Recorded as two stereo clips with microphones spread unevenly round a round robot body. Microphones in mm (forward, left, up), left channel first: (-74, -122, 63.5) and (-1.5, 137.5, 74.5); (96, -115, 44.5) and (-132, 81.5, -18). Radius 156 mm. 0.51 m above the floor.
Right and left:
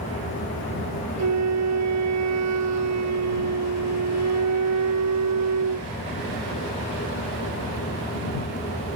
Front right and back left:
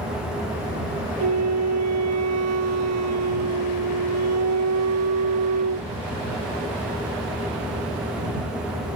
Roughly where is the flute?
Left.